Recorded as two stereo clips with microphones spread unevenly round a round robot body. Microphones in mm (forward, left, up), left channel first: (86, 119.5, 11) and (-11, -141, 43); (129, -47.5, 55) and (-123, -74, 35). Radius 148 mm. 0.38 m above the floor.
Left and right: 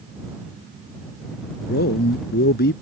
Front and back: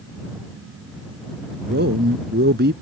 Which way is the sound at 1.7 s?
130° left.